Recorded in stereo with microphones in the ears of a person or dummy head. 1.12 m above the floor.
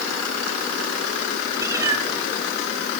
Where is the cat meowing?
20° right (ahead or behind), 3 m.